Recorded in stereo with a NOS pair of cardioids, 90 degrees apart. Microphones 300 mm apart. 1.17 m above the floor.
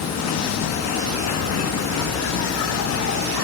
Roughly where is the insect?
Ahead left.